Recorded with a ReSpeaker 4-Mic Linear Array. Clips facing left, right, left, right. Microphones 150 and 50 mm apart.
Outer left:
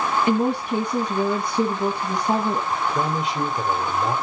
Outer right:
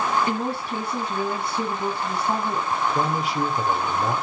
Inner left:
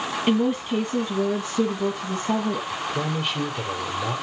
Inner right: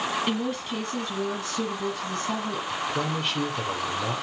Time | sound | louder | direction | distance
0.3 | a woman speaking | outer left 6 dB, inner left 6 dB | 20° left (ahead or behind) | 2.5 m
2.7 | a man speaking | even, inner left 1 dB | centre (ahead or behind) | 4.5 m